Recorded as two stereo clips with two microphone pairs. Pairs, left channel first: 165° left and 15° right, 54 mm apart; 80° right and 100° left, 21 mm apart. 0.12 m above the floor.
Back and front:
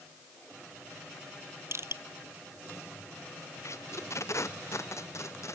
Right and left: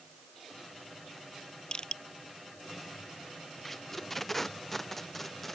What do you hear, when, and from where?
1.7 s crushing: 45° right
3.6 s tape being pulled: 160° right